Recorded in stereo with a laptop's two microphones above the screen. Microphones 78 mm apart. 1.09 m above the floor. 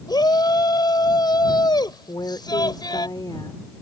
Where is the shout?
65° left (ahead or behind).